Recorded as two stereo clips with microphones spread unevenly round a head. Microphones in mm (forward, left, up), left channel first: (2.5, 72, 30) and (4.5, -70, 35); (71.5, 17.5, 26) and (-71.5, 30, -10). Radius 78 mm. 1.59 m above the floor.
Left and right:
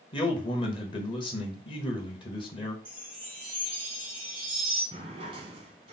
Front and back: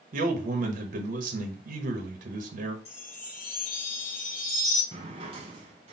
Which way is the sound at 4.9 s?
130° right.